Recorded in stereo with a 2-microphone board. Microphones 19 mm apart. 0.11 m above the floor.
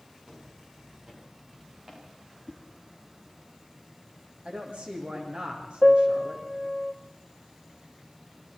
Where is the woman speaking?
75° right (ahead or behind), 6.5 m.